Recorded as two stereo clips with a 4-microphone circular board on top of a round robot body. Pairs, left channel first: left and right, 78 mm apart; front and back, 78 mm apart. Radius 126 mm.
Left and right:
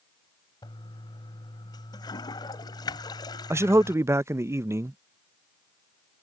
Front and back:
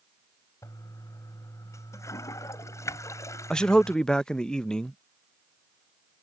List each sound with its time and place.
0.6 s a toilet flushing: 55° left
3.5 s a man speaking: 75° right